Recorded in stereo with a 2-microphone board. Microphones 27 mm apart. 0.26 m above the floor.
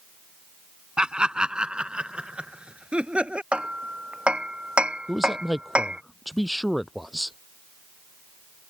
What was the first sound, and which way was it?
Laughter, 35° right (ahead or behind).